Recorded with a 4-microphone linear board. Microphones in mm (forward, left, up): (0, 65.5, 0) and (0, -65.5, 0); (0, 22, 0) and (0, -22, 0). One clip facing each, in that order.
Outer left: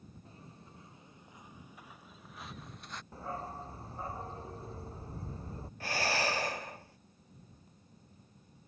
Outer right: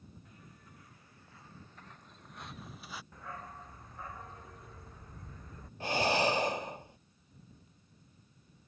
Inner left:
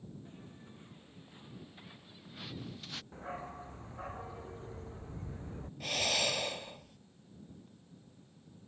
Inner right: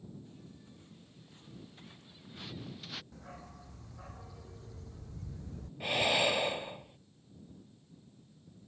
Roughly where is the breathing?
Right.